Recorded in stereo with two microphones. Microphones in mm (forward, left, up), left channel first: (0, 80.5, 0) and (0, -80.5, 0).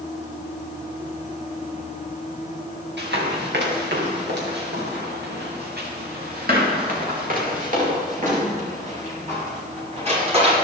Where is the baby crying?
No baby crying in this recording.